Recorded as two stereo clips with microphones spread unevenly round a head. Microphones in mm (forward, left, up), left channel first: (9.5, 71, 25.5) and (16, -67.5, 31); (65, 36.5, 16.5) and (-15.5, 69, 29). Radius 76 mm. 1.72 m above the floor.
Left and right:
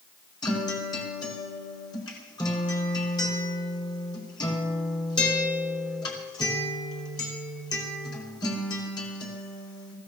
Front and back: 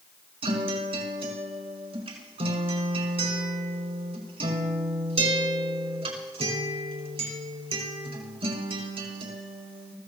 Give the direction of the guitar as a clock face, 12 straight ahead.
7 o'clock.